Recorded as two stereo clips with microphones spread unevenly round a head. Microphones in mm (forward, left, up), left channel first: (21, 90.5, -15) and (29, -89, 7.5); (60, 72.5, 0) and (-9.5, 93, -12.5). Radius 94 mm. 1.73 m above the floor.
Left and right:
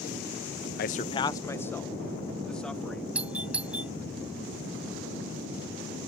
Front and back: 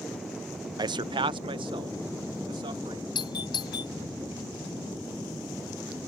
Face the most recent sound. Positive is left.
turn(degrees=-5)